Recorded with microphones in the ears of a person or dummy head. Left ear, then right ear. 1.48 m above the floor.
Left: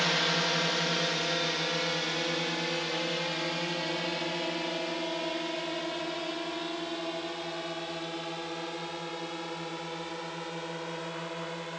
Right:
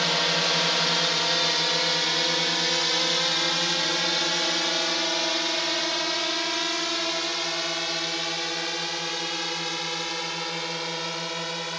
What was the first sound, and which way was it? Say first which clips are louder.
A drone: right 4 dB; 10° right (ahead or behind).